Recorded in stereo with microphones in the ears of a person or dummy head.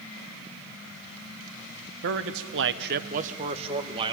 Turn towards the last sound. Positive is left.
turn(degrees=-30)  # may be behind; listen again after turning